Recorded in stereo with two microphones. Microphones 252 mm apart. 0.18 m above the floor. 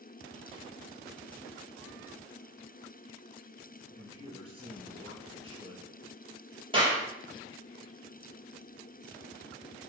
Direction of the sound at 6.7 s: 20° right (ahead or behind).